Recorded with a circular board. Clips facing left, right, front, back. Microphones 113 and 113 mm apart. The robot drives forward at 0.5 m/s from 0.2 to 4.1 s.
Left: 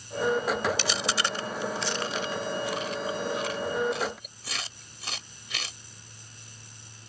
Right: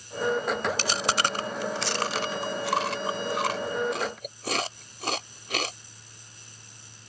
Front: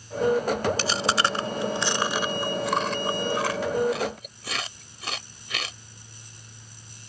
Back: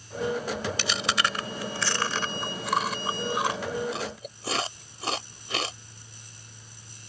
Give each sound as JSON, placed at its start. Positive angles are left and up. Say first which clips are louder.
{"t": 0.8, "sound": "chewing", "louder": "right 3 dB, front 4 dB", "azimuth_deg": -50}